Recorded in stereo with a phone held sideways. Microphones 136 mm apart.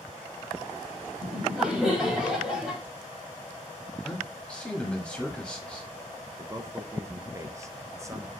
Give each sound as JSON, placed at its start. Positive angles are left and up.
{"t": 1.2, "sound": "laughter", "side_deg": -5, "distance_m": 3.5}
{"t": 4.0, "sound": "a man speaking", "side_deg": 10, "distance_m": 2.0}
{"t": 6.4, "sound": "a man speaking", "side_deg": -20, "distance_m": 0.9}